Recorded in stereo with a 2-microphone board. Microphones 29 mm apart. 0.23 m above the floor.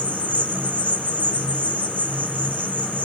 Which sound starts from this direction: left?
An insect, at 0.0 s.